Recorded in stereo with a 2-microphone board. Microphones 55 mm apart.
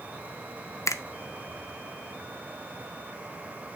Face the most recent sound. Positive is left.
turn(degrees=80)